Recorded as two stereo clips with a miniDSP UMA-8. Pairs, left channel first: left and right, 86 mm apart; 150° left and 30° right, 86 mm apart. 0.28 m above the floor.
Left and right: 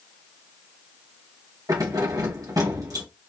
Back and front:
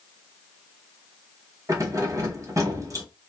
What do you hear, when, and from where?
1.7 s keys jangling: 65° right, 1.3 m